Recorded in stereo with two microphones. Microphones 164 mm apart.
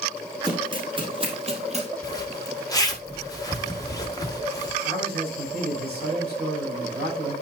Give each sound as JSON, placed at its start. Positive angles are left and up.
{"t": 0.4, "sound": "running footsteps", "side_deg": -30, "distance_m": 3.5}
{"t": 2.0, "sound": "a zipper", "side_deg": 25, "distance_m": 1.3}
{"t": 4.8, "sound": "a man speaking", "side_deg": -75, "distance_m": 6.0}